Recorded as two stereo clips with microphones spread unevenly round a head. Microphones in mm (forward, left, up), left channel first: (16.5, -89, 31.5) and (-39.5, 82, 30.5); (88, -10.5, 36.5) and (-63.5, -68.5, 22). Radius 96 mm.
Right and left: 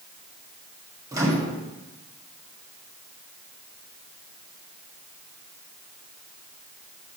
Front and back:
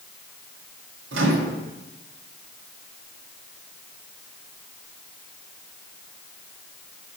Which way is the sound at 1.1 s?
Straight behind.